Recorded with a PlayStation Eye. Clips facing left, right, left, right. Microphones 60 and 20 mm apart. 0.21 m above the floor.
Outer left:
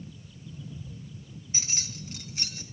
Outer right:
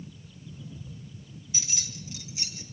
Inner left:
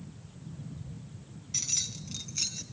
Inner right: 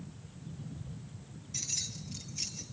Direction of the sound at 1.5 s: 40° left (ahead or behind).